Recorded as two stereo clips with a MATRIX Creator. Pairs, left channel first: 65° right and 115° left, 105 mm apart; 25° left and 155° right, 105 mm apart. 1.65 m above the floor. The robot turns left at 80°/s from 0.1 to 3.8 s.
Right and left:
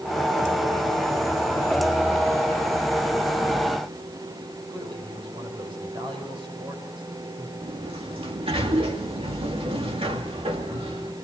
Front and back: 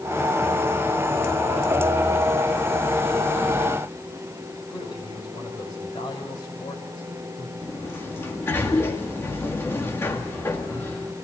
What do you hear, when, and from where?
4.7 s a man speaking: 70° left, 6 m
7.6 s a sliding door: 90° left, 2.0 m